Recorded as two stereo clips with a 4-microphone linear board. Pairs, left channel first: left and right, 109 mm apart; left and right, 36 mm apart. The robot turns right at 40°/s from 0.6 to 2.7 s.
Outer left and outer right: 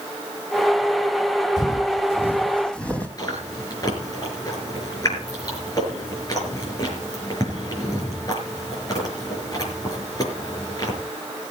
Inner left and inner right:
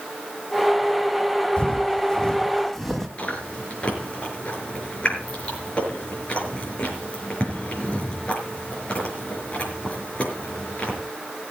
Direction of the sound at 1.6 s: 30° left (ahead or behind).